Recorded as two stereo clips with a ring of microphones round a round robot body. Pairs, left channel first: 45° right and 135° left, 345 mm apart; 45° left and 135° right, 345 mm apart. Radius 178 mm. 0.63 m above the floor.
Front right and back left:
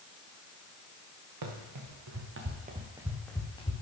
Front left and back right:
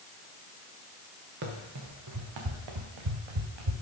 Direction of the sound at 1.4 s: 165° left.